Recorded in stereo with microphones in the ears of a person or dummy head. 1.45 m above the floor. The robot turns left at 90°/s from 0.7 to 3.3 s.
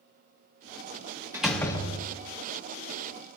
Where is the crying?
No crying in this recording.